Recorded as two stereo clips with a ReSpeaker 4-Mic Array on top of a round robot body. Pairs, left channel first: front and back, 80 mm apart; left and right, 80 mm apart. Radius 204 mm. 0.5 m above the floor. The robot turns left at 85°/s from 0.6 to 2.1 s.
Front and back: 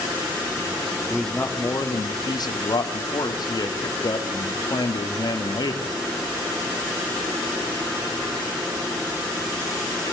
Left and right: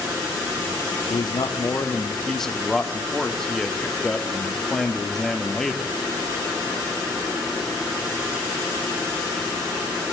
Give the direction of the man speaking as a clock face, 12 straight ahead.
9 o'clock.